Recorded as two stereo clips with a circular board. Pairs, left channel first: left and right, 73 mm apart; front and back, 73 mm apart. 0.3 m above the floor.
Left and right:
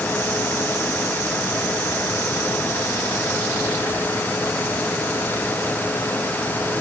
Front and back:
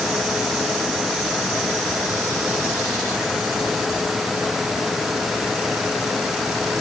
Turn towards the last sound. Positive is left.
No sound to turn to.